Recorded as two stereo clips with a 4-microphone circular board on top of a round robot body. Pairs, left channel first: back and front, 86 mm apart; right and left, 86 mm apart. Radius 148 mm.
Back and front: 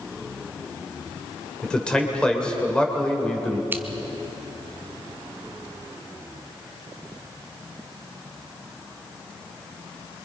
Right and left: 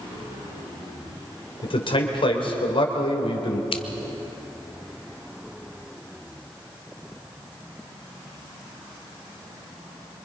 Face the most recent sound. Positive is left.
turn(degrees=-70)